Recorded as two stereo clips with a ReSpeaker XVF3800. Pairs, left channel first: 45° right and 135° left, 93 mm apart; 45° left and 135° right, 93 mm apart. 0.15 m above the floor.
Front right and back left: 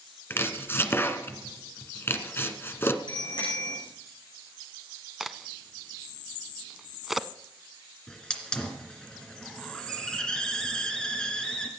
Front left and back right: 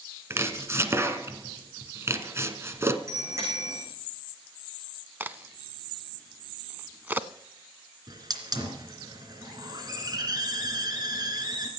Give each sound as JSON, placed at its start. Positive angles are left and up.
{"t": 0.3, "sound": "chopping", "azimuth_deg": -95, "distance_m": 1.2}
{"t": 3.1, "sound": "a bicycle bell", "azimuth_deg": -80, "distance_m": 8.0}
{"t": 5.2, "sound": "a crack", "azimuth_deg": -140, "distance_m": 0.6}
{"t": 8.1, "sound": "a hiss", "azimuth_deg": -125, "distance_m": 2.5}